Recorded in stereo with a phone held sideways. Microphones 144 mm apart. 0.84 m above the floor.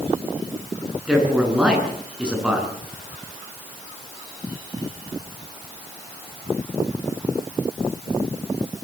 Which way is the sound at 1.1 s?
5° right (ahead or behind).